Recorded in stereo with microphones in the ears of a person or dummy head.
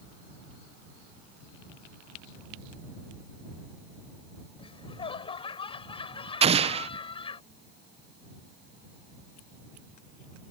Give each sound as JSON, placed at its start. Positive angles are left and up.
{"t": 4.6, "sound": "laughter", "side_deg": 30}
{"t": 6.4, "sound": "an explosion", "side_deg": -35}